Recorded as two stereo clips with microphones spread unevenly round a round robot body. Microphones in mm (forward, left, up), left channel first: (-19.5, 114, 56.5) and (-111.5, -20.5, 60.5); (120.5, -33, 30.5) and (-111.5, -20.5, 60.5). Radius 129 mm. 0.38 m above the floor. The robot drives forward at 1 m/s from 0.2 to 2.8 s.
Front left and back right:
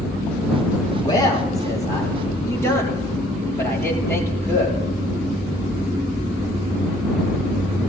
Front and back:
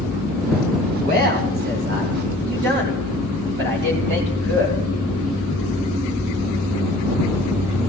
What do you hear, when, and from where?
1.0 s a man speaking: 120° left, 9 m; by 4.8 s 130° left, 10 m